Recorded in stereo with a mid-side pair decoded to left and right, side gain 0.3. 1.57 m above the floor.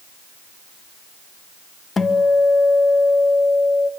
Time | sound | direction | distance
2.0 | a guitar | 55° left | 1.8 m